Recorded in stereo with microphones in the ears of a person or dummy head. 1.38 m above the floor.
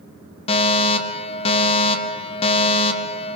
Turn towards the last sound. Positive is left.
turn(degrees=30)  # may be behind; listen again after turning